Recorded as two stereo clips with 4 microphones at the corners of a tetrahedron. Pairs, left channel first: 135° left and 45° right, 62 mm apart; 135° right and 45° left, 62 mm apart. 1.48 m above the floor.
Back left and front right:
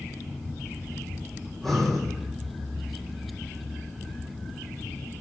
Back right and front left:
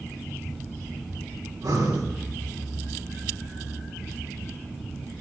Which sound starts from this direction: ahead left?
Breathing, at 1.5 s.